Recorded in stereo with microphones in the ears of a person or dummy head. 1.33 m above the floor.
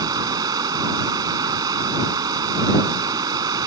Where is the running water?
20° right (ahead or behind).